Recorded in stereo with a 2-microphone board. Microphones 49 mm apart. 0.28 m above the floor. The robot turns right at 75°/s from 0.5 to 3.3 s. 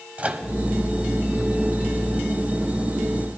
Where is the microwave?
30° right (ahead or behind), 1.0 m.